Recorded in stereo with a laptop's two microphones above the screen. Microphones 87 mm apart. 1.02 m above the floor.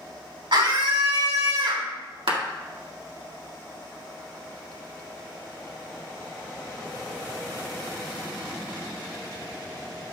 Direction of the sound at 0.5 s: 80° right.